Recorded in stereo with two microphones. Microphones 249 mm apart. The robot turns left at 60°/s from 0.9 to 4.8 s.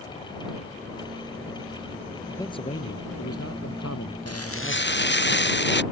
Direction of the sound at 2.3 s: 175° left.